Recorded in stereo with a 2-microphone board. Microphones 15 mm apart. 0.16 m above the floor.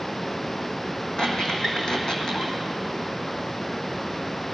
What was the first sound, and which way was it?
A squeak, 40° left (ahead or behind).